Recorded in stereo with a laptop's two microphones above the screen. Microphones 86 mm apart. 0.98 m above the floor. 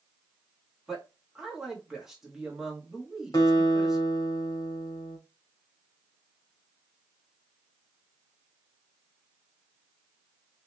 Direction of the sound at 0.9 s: 5° right (ahead or behind).